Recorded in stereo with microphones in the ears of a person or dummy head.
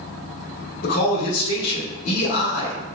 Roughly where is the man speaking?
Left.